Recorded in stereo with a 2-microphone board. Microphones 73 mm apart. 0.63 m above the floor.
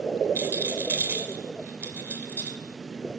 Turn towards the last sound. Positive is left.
turn(degrees=-30)  # may be behind; listen again after turning